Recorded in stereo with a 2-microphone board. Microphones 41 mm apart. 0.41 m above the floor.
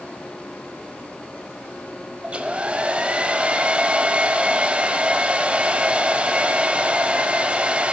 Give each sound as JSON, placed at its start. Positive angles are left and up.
{"t": 2.2, "sound": "a hair dryer", "side_deg": -25, "distance_m": 0.6}